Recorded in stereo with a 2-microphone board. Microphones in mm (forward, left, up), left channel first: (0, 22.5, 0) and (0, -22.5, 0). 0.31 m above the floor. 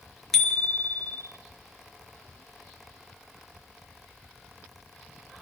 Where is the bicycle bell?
10° left (ahead or behind), 4 m.